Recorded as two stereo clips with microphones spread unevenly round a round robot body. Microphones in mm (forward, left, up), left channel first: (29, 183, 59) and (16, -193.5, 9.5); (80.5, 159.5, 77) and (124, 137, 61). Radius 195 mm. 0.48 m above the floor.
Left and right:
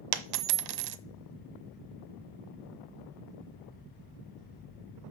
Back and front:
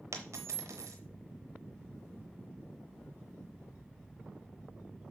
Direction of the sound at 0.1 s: 60° right.